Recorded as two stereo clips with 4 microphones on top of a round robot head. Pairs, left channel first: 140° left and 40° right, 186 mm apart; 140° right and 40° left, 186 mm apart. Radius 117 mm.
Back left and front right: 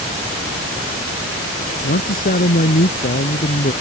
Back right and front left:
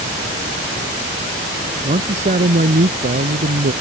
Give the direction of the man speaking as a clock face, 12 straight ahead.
9 o'clock.